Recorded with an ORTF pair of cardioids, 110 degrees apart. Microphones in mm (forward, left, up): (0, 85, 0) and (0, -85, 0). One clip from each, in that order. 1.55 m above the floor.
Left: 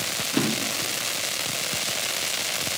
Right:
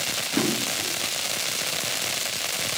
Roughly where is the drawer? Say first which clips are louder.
Even; ahead.